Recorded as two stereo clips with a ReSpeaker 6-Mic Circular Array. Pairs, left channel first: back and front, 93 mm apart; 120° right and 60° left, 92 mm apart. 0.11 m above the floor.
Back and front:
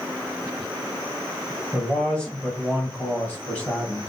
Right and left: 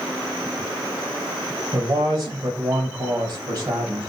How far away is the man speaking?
About 2 m.